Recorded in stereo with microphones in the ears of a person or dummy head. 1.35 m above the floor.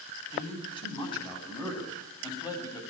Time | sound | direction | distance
0.3 | a man speaking | 25° left (ahead or behind) | 9 m